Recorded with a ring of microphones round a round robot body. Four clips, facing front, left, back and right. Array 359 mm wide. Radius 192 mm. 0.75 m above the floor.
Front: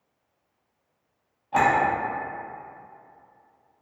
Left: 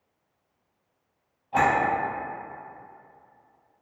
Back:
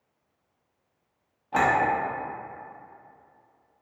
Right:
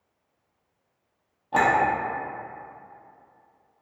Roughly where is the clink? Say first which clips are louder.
Right 1 dB, front 2 dB; right.